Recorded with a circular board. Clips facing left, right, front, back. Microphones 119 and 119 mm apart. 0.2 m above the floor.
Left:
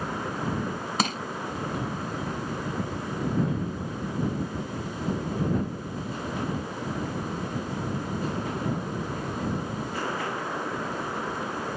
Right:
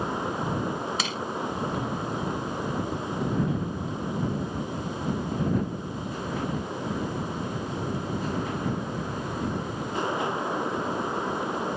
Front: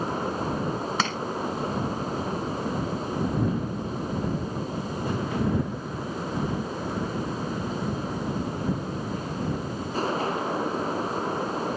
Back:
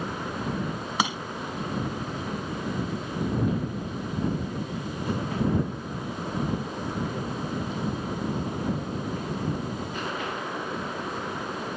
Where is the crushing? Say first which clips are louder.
Left 4 dB, back 4 dB; 105° left.